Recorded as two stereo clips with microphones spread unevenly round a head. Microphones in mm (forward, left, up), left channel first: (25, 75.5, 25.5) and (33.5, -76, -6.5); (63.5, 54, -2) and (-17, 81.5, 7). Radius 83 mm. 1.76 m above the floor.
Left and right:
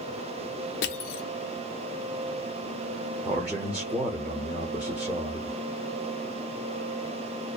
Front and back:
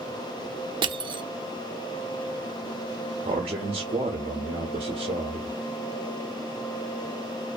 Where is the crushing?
125° left, 0.5 m.